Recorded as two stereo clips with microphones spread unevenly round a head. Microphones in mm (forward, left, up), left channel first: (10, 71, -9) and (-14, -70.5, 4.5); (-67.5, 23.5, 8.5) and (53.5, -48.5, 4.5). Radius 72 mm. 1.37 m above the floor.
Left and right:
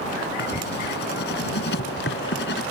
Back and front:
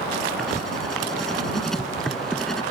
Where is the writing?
60° left.